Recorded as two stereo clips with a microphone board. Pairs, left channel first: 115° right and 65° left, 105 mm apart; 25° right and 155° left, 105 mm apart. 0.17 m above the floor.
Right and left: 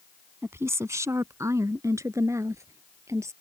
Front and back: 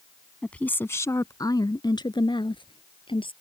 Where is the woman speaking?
50° left; by 3.3 s 5° left.